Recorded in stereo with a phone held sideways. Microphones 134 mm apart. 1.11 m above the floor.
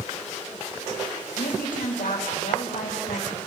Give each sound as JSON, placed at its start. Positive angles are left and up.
{"t": 1.3, "sound": "a woman speaking", "side_deg": 85, "distance_m": 7.0}